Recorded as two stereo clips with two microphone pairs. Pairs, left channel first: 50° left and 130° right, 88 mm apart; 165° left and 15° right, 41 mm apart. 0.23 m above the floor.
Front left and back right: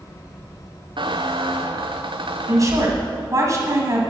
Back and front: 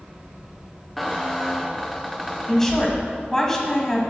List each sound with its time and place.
1.0 s a squeak: 105° right, 0.8 m
2.5 s a woman speaking: 120° right, 1.7 m